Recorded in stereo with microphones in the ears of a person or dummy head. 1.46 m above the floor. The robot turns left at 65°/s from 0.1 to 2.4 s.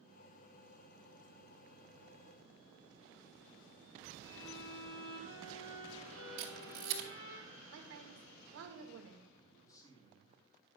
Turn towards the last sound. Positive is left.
turn(degrees=20)  # may be behind; listen again after turning